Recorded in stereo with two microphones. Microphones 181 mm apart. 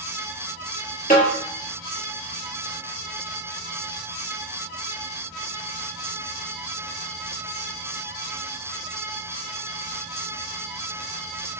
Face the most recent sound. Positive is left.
turn(degrees=55)  # may be behind; listen again after turning